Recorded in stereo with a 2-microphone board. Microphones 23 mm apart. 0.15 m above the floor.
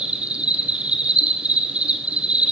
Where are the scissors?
No scissors in this recording.